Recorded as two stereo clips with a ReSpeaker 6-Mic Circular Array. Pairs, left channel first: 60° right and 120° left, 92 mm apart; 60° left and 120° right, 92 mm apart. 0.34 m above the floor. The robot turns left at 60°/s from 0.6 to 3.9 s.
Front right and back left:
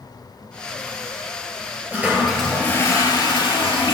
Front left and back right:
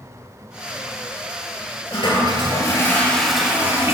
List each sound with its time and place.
1.9 s a toilet flushing: 55° left, 4 m; by 3.9 s 65° right, 4 m